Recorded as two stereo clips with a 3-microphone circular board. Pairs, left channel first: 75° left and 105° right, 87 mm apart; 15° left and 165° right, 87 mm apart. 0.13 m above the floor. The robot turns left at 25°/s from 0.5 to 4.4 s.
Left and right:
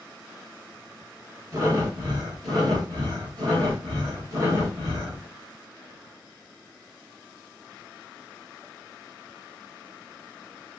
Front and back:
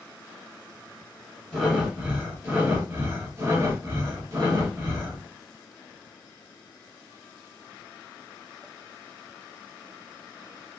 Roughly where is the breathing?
Right.